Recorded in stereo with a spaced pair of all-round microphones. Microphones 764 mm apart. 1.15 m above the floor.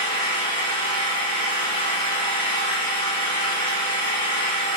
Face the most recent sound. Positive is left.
turn(degrees=35)  # may be behind; listen again after turning